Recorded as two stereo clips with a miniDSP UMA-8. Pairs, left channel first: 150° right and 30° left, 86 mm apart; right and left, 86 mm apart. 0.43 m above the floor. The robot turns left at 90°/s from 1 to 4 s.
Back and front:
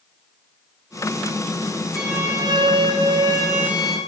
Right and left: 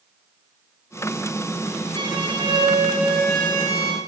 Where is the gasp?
No gasp in this recording.